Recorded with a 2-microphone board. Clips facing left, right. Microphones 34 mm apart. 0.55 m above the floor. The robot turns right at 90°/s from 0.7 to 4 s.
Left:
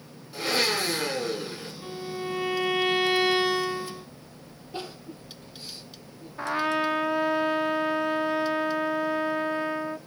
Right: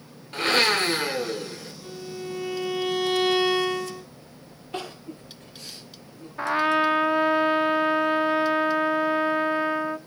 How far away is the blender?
About 5 m.